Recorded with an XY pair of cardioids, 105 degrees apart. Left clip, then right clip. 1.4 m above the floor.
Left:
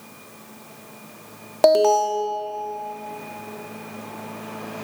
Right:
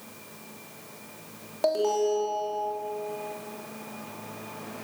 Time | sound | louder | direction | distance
1.6 | an alarm | left 9 dB | 65° left | 2.5 m